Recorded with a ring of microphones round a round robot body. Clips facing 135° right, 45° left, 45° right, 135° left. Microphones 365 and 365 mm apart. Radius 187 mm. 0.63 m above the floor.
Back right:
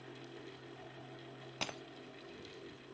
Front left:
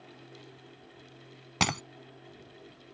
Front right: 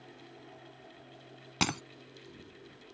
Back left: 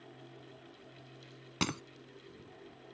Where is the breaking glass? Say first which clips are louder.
Front left 14 dB, front right 2 dB; 40° left.